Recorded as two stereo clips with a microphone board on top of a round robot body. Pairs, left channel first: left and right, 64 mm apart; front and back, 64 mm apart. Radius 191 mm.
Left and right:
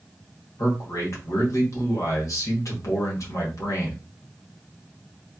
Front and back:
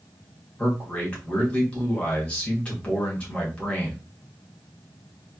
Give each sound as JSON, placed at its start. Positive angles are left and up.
{"t": 0.6, "sound": "a man speaking", "azimuth_deg": 70, "distance_m": 2.0}